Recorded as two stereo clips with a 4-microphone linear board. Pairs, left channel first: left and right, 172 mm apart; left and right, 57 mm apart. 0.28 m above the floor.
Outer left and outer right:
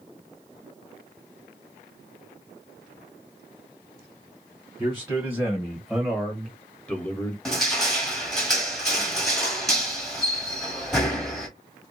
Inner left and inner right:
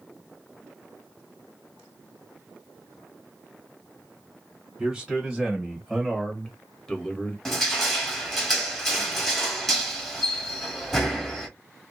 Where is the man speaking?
15° right (ahead or behind), 1.7 m; by 7.3 s 15° left (ahead or behind), 1.3 m.